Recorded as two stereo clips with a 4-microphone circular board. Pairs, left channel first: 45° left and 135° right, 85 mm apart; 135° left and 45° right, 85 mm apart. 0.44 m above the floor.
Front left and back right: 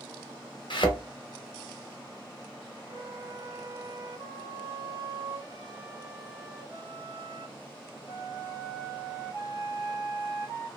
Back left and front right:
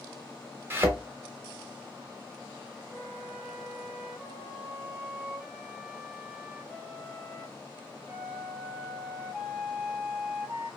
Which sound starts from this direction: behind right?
A flute, at 2.9 s.